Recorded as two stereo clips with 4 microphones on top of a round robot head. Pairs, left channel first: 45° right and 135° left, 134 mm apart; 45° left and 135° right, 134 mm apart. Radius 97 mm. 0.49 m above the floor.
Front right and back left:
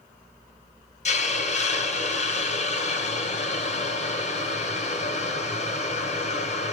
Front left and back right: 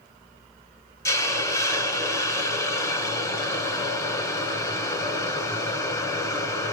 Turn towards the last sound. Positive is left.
turn(degrees=-20)